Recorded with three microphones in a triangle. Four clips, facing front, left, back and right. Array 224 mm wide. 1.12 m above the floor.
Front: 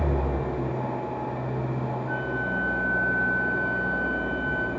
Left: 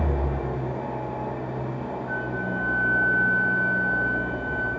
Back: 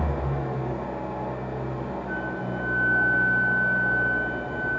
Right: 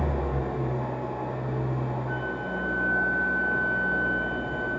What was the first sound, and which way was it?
An engine running, 20° left.